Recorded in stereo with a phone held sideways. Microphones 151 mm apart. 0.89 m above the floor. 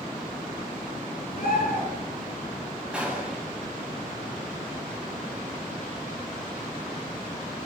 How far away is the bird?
About 6 m.